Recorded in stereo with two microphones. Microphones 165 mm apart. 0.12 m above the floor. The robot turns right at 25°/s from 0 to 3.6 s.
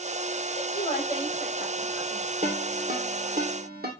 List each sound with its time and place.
0.6 s a woman speaking: 35° left (ahead or behind), 7.5 m; by 2.2 s 5° right (ahead or behind), 7.5 m
2.4 s a ringtone: 45° right (ahead or behind), 3 m; by 3.9 s 70° right (ahead or behind), 3 m